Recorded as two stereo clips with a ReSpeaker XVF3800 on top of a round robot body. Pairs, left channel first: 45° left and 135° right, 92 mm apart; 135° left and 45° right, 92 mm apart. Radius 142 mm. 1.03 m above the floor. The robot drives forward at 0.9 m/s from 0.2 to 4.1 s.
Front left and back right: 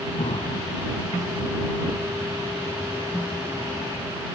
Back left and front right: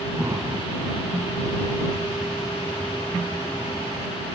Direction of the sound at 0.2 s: 20° left.